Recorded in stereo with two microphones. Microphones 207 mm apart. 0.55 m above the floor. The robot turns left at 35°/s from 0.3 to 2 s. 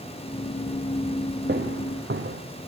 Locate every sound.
1.5 s footsteps: 60° right (ahead or behind), 3.5 m; by 2.4 s 75° right (ahead or behind), 3.5 m